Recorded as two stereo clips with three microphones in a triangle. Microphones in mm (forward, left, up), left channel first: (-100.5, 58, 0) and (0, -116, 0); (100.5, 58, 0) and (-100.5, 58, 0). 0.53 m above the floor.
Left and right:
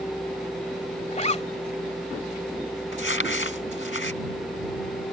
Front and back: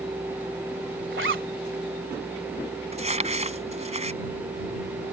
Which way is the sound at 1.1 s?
175° left.